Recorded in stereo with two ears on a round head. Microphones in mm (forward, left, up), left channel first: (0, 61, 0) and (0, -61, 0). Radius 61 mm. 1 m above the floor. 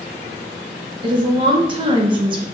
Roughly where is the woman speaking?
Right.